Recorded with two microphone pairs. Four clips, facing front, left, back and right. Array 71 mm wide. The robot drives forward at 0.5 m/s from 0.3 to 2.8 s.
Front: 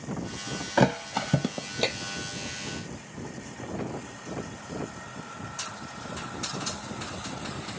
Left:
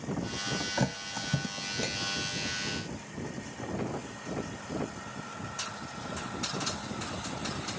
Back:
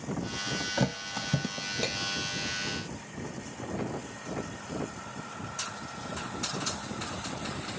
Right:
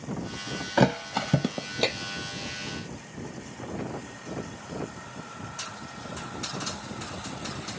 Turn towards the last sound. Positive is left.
turn(degrees=-95)